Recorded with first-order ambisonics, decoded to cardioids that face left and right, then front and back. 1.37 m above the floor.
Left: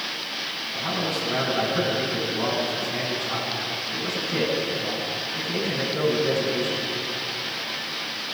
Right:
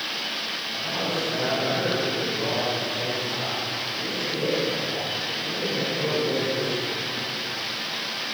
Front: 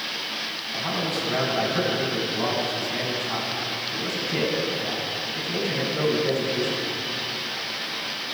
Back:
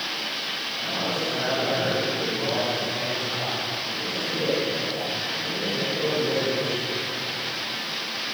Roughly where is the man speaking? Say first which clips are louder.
Left 1 dB, front 2 dB; ahead left.